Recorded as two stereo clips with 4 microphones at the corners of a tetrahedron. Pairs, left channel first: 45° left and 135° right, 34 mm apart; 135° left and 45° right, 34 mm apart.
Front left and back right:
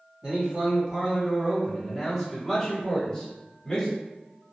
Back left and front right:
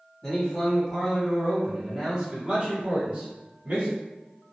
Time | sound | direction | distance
0.2 | a man speaking | 160° right | 1.8 m